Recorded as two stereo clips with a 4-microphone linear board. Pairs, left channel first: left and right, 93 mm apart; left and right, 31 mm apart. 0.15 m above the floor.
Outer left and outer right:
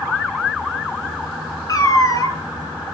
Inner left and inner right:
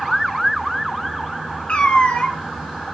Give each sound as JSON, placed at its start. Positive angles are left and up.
{"t": 1.7, "sound": "a cat meowing", "side_deg": 40, "distance_m": 0.8}